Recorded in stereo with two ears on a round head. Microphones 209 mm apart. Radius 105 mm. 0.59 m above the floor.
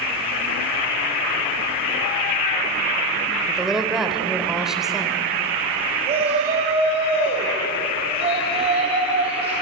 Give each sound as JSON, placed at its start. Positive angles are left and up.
{"t": 3.5, "sound": "a woman speaking", "side_deg": 0, "distance_m": 2.5}
{"t": 6.0, "sound": "a shout", "side_deg": -30, "distance_m": 3.5}